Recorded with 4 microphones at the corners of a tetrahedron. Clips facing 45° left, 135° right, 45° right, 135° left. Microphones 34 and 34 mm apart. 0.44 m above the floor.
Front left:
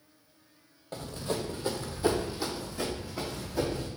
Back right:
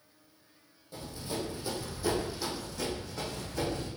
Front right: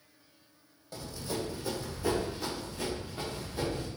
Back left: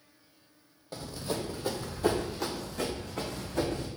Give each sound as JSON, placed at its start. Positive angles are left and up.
{"t": 0.9, "sound": "running footsteps", "azimuth_deg": 70, "distance_m": 1.0}